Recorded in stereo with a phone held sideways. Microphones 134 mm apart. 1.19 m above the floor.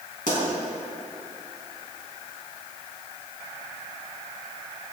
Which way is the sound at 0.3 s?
80° left.